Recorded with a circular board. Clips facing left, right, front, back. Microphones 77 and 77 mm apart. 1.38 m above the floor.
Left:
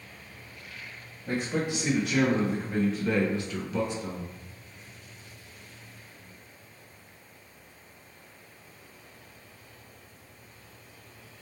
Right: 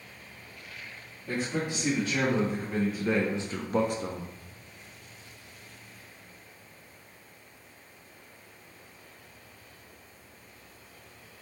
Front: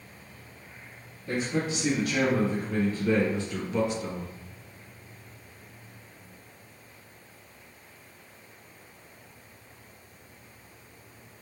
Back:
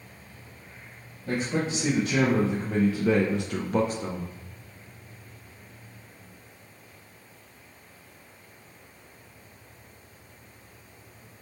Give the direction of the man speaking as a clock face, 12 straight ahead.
7 o'clock.